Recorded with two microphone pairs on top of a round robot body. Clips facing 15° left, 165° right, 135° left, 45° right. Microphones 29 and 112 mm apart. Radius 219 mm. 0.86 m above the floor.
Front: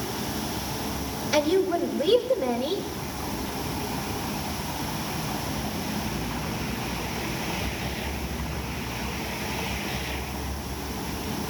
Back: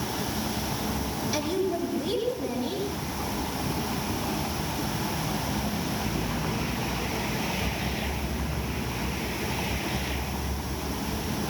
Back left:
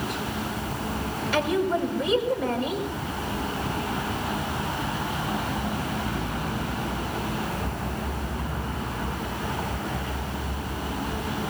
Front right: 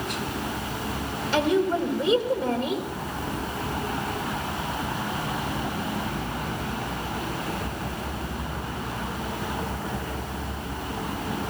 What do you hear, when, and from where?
1.3 s a woman speaking: 15° left, 6 m